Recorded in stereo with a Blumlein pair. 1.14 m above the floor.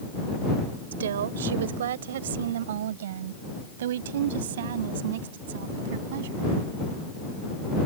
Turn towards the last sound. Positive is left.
turn(degrees=-55)